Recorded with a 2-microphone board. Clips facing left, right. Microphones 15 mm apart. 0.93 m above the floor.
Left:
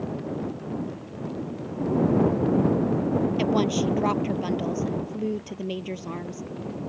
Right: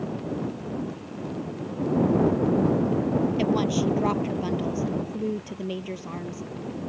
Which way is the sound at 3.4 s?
5° left (ahead or behind).